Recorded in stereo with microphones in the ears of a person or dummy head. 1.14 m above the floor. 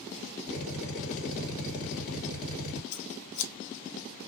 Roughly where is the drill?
Left.